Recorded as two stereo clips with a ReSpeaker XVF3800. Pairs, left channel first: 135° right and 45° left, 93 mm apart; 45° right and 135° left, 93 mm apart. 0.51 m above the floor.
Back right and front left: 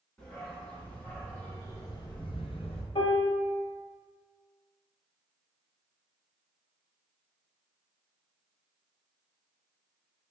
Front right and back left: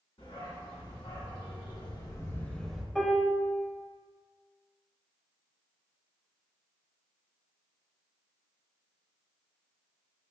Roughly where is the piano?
Behind right.